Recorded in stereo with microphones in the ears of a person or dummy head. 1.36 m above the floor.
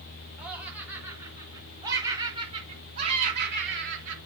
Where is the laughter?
5° right (ahead or behind), 6 m; by 4.2 s 65° right (ahead or behind), 3 m.